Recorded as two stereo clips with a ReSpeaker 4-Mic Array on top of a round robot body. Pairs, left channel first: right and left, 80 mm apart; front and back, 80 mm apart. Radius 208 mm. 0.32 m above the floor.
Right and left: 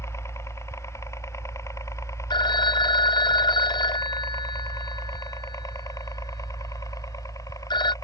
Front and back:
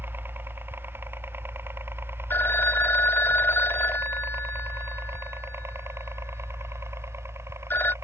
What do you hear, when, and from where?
0.0 s a helicopter: 125° right; by 8.0 s 130° right
2.3 s a phone ringing: 65° right